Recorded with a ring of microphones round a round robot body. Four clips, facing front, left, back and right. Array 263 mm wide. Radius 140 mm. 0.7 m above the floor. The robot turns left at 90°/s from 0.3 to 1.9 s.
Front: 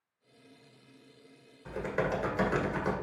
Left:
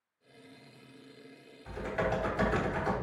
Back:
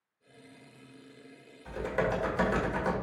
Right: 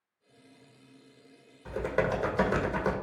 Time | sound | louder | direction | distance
1.6 | typing on a keyboard | right 4 dB, back 1 dB | 65° right | 1.7 m